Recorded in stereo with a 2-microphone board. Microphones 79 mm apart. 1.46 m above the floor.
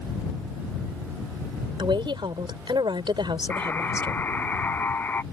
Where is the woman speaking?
85° right.